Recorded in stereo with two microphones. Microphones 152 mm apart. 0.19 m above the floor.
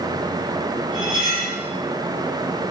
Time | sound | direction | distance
0.9 | cutlery clinking | 30° right (ahead or behind) | 3 m